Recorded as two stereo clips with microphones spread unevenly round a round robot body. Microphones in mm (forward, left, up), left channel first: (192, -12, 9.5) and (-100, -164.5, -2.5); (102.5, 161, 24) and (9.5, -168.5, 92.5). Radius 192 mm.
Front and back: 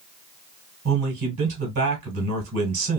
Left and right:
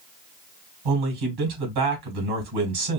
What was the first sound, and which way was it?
A man speaking, 115° right.